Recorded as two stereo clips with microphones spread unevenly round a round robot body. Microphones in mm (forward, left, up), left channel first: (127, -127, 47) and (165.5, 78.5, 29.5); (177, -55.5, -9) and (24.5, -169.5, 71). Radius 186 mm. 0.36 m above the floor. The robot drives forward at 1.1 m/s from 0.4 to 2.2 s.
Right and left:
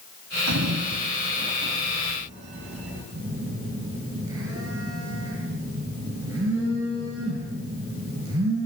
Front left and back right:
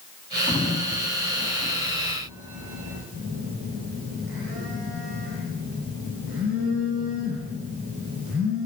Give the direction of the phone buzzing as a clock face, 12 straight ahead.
7 o'clock.